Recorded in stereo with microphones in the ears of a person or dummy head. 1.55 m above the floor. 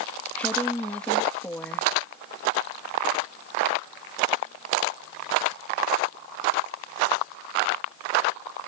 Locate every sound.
0.3 s a woman speaking: 10° left (ahead or behind)